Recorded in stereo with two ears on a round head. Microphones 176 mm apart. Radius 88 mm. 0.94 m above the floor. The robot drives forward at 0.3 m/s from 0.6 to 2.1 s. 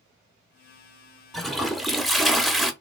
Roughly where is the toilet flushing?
Centre.